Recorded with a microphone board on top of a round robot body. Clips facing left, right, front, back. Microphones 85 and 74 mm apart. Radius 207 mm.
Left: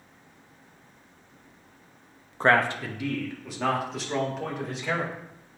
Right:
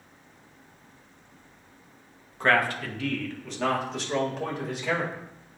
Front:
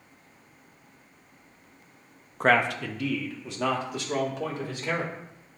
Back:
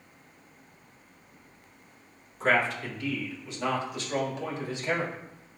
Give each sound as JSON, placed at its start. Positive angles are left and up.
{"t": 2.4, "sound": "a man speaking", "azimuth_deg": 35, "distance_m": 0.7}